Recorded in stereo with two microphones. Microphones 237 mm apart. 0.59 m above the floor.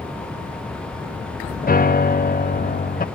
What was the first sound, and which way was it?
A piano, 40° left (ahead or behind).